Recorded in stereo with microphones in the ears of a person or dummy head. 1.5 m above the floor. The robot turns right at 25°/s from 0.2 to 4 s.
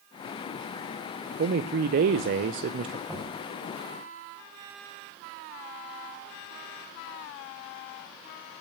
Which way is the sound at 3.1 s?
Centre (ahead or behind).